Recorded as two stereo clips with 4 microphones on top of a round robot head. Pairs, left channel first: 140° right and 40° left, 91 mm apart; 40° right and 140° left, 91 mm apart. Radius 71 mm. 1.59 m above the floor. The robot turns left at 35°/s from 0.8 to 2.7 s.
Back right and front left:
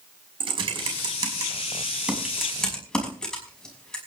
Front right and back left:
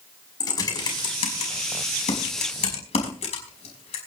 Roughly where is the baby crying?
I don't hear a baby crying.